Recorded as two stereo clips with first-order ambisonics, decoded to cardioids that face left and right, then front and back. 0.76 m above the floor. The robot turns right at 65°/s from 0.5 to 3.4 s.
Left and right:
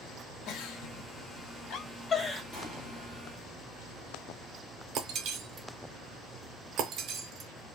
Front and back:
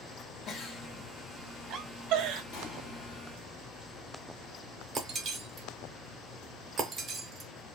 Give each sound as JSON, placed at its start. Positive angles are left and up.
{"t": 0.5, "sound": "a giggle", "azimuth_deg": 55, "distance_m": 0.6}
{"t": 2.5, "sound": "an explosion", "azimuth_deg": 5, "distance_m": 1.5}
{"t": 5.0, "sound": "breaking glass", "azimuth_deg": -125, "distance_m": 0.6}